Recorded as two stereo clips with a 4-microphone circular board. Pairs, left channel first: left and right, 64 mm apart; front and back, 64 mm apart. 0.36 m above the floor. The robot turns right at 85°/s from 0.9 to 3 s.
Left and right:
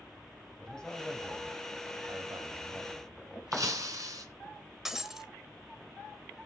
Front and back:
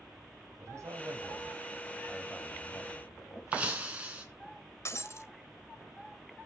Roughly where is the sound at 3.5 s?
Right.